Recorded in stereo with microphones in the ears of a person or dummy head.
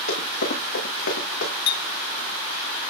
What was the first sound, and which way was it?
Running footsteps, 80° left.